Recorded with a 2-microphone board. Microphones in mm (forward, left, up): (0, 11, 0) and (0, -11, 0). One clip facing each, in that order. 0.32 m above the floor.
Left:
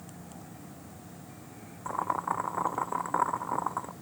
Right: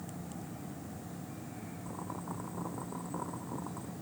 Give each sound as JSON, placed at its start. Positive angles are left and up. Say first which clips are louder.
{"t": 1.9, "sound": "boiling", "louder": "left 13 dB", "side_deg": 80}